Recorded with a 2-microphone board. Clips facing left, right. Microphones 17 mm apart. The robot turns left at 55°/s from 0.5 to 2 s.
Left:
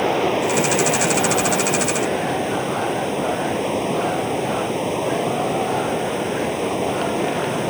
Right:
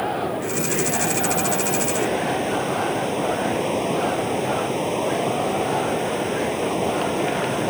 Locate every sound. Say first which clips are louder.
0.0 s running water: left 6 dB; 90° left; by 7.7 s 5° left